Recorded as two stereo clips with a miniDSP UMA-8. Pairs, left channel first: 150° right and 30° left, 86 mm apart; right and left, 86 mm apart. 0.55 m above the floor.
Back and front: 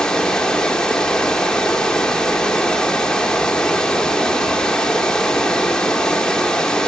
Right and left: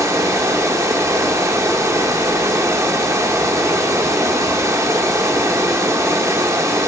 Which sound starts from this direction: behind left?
Running water, at 0.0 s.